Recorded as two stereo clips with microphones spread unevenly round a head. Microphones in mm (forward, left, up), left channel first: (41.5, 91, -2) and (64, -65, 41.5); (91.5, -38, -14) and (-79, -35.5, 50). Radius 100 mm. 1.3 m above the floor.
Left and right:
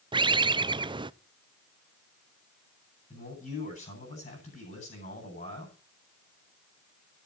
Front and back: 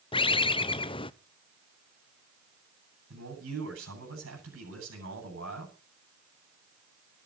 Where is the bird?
15° right, 0.7 m.